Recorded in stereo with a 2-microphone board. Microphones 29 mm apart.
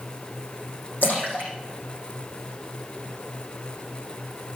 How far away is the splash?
About 6 m.